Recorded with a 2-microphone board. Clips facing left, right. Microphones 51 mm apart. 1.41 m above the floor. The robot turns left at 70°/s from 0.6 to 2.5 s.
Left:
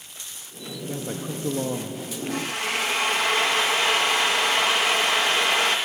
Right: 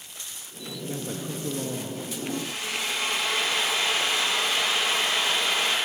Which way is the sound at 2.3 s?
80° left.